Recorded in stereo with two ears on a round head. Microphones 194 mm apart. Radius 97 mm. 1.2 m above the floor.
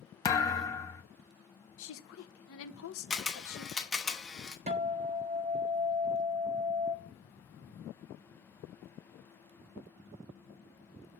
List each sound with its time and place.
0.2 s a thud: 15° left (ahead or behind), 0.6 m
1.8 s a woman speaking: 65° left (ahead or behind), 0.9 m
3.1 s a camera shutter: centre (ahead or behind), 0.8 m
4.7 s a guitar: 30° right (ahead or behind), 0.7 m